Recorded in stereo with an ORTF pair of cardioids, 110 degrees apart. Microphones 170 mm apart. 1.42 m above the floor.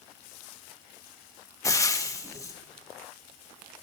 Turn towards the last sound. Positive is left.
turn(degrees=20)